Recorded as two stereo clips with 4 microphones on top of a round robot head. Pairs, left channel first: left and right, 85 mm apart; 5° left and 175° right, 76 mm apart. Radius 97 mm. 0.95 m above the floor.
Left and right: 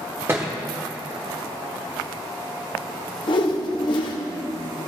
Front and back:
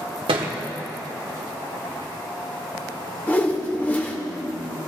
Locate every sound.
0.3 s a thud: 160° right, 0.9 m
3.3 s a whoosh: 65° left, 0.8 m